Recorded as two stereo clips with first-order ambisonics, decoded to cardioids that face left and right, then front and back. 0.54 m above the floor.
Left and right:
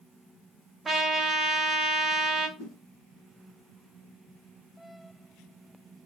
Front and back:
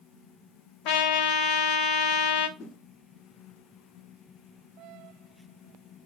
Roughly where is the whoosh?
Ahead left.